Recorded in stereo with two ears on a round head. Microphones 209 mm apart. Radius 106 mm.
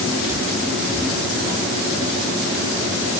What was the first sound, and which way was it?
Only background noise.